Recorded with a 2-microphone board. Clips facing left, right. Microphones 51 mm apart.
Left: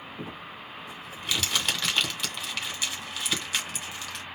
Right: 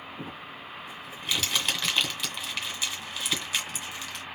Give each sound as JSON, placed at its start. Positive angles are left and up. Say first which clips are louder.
{"t": 0.2, "sound": "crumpling", "louder": "even", "side_deg": 0, "distance_m": 1.8}